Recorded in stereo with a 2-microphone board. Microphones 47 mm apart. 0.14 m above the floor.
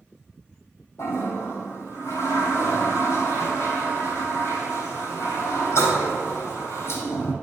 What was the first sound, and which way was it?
A toilet flushing, 70° left (ahead or behind).